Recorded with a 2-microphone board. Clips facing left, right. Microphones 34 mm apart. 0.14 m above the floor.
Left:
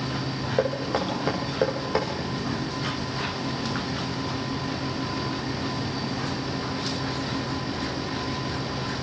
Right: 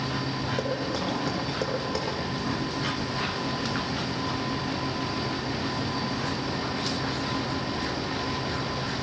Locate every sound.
0.6 s knocking: 30° left (ahead or behind), 5 m